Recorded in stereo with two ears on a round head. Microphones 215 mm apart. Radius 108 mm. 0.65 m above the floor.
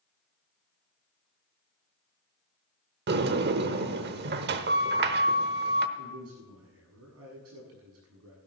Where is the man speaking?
70° right (ahead or behind), 7 m.